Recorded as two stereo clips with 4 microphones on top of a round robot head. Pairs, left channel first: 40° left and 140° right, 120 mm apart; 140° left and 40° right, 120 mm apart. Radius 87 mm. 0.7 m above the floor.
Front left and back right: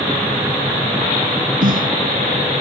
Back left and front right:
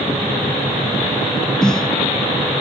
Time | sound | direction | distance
1.6 | a snare drum | 135° right | ?